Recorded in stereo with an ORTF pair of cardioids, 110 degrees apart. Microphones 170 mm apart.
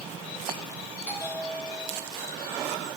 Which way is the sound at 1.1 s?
10° left.